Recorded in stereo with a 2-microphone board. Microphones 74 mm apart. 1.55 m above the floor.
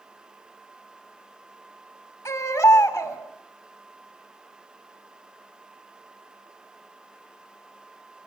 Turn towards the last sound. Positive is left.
turn(degrees=35)  # may be behind; listen again after turning